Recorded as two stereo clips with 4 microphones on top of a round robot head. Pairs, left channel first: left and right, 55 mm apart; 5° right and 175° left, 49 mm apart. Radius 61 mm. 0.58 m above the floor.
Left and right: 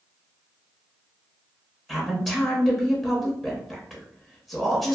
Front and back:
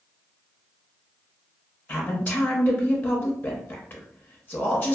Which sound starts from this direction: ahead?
A woman speaking, at 1.9 s.